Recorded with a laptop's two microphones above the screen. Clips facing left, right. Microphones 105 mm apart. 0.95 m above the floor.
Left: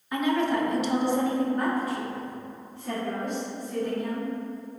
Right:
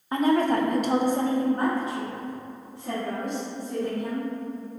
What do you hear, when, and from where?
0.1 s a woman speaking: 35° right (ahead or behind), 0.7 m; by 4.3 s 10° right (ahead or behind), 2.5 m